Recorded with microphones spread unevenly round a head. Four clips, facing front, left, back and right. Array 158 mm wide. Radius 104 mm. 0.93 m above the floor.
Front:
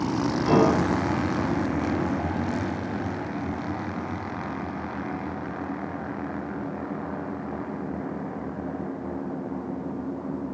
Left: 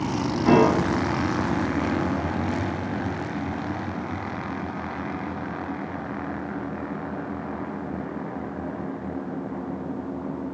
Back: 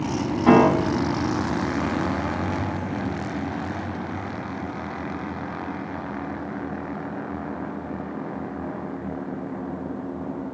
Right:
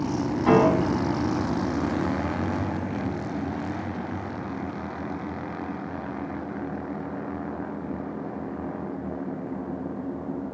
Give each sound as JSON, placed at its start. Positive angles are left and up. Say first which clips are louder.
{"t": 0.5, "sound": "a piano", "louder": "left 1 dB, back 5 dB", "azimuth_deg": 160, "distance_m": 7.0}